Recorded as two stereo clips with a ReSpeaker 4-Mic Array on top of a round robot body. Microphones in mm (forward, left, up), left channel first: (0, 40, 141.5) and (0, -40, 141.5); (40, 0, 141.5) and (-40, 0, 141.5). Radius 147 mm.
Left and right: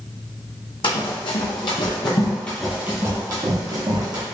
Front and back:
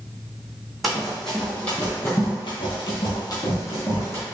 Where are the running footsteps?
90° left, 1.2 m; by 4.2 s 55° right, 1.2 m.